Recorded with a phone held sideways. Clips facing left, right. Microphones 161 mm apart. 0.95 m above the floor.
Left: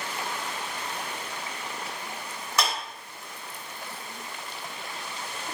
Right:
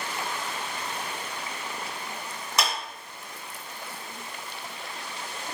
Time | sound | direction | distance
2.6 | a clap | 15° right (ahead or behind) | 1.9 m